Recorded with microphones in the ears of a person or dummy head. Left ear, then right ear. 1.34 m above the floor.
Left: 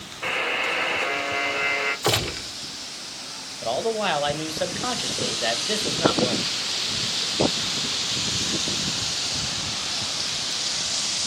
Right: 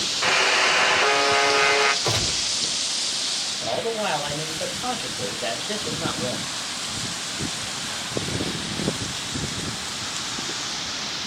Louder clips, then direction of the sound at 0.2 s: Right 5 dB; 65° right (ahead or behind).